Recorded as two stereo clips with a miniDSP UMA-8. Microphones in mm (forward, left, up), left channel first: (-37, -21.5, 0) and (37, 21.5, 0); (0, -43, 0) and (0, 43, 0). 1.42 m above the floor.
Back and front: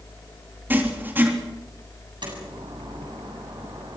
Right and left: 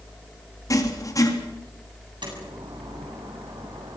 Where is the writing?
40° right, 3.5 m.